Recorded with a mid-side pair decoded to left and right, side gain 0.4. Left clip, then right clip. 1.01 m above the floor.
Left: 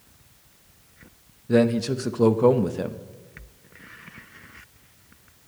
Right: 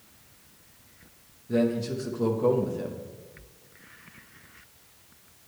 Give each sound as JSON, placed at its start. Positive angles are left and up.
{"t": 1.5, "sound": "a man speaking", "azimuth_deg": 65, "distance_m": 0.6}